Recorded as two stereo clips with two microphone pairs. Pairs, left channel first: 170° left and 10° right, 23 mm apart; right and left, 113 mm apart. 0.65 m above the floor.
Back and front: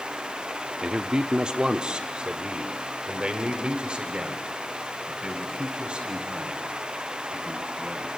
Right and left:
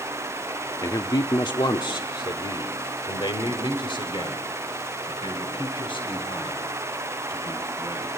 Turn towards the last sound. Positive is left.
turn(degrees=-50)